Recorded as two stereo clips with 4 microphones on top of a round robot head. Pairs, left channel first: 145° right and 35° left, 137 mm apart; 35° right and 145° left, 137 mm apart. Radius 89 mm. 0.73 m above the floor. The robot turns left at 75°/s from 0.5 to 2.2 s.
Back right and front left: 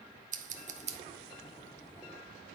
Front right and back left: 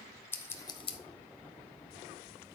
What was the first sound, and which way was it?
Scissors, 35° left.